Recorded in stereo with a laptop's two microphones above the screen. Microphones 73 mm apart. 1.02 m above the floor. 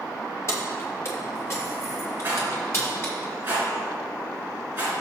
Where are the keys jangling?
40° left (ahead or behind), 2 m; by 3.2 s 35° left (ahead or behind), 4 m.